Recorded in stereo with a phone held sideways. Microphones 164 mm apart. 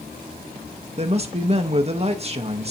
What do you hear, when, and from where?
1.0 s a man speaking: 40° right (ahead or behind), 0.7 m